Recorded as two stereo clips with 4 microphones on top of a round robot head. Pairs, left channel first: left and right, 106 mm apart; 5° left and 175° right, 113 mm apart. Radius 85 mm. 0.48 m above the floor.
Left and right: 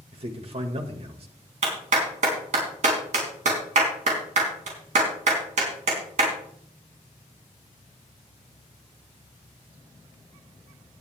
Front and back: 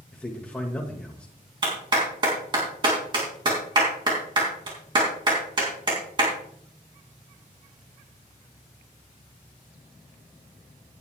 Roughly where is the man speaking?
Right.